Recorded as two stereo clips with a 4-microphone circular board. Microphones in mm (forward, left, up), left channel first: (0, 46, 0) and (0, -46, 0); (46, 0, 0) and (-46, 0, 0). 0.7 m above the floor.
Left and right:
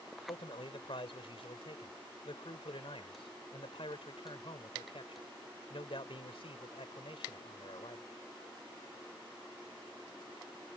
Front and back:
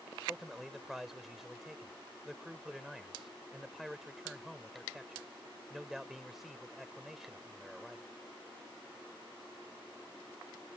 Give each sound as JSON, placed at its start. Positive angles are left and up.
{"t": 0.3, "sound": "a man speaking", "azimuth_deg": 90}